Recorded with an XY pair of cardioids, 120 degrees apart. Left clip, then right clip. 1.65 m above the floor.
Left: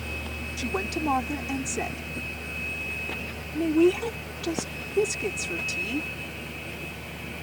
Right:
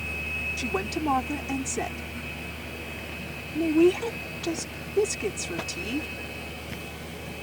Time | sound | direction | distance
0.6 | a woman speaking | 5° right | ?